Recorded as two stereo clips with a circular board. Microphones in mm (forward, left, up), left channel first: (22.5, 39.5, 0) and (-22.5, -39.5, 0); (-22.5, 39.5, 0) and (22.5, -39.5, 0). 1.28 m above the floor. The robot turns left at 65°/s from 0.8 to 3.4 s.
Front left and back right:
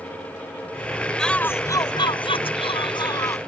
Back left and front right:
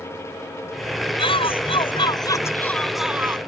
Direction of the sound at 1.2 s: 145° left.